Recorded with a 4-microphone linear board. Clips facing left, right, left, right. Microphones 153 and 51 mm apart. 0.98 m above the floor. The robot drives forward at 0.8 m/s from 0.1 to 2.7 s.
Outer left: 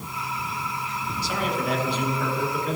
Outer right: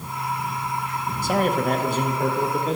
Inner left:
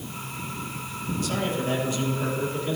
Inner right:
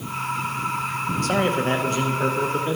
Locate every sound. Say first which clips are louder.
1.2 s a man speaking: outer right 6 dB, inner right 6 dB; 50° right (ahead or behind), 0.9 m; by 2.8 s 30° right (ahead or behind), 1.4 m